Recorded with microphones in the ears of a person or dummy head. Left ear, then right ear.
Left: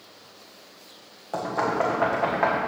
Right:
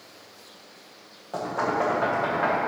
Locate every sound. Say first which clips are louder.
1.3 s knocking: left 1 dB; 35° left (ahead or behind), 1.2 m